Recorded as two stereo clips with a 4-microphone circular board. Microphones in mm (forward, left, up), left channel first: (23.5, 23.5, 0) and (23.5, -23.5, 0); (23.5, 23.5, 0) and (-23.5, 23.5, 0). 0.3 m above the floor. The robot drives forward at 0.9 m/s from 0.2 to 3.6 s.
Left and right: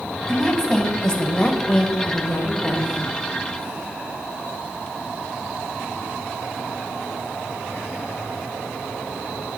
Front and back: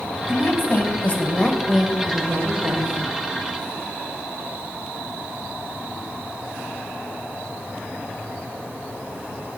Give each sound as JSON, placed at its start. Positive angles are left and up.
{"t": 0.3, "sound": "a woman speaking", "azimuth_deg": 10, "distance_m": 1.6}